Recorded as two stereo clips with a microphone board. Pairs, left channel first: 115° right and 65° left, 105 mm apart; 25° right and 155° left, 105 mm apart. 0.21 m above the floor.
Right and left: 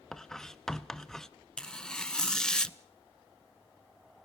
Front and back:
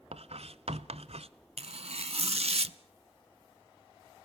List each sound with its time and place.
0.1 s writing: 160° left, 0.8 m
1.6 s tearing paper: 165° left, 0.7 m